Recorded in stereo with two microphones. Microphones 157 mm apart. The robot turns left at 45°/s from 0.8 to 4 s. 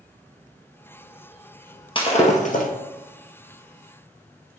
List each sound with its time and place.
1.9 s breaking glass: 35° left (ahead or behind), 1.6 m; by 2.7 s 65° left (ahead or behind), 1.6 m